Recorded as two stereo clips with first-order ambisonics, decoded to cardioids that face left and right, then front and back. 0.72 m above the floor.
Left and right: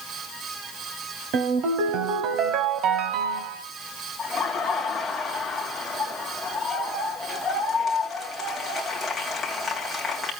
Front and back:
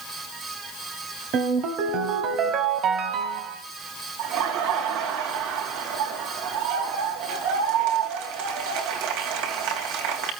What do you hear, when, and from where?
1.3 s a ringtone: 135° right, 1.7 m
4.2 s laughter: 175° left, 3.5 m